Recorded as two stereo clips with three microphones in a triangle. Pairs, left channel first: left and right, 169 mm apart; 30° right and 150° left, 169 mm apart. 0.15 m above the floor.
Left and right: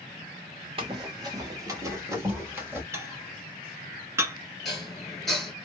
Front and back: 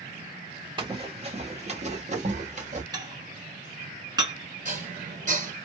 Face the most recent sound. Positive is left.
turn(degrees=180)